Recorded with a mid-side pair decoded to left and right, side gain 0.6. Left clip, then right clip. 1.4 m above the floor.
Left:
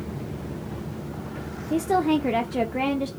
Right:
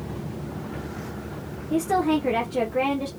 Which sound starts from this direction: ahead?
A woman speaking, at 1.7 s.